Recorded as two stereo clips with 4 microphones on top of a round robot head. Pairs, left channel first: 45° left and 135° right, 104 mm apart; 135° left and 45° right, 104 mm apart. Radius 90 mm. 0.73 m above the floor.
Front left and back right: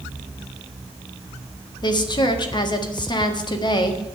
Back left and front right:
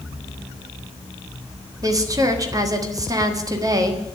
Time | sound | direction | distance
1.8 | a woman speaking | 5° left | 1.7 m